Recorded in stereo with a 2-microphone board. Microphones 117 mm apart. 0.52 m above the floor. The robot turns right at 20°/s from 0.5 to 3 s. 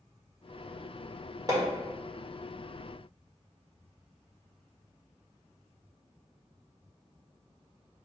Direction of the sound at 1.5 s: 30° right (ahead or behind).